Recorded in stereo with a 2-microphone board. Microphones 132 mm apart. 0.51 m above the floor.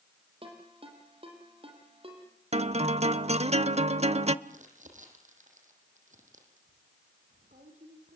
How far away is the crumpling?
About 6 m.